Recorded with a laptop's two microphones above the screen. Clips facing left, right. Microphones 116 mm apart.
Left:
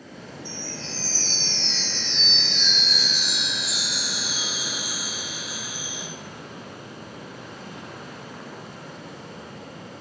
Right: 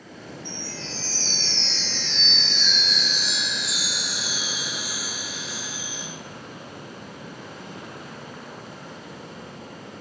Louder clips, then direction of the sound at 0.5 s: Left 1 dB; 10° left (ahead or behind).